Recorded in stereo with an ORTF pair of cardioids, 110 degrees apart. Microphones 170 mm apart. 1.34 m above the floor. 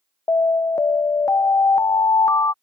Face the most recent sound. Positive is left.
turn(degrees=20)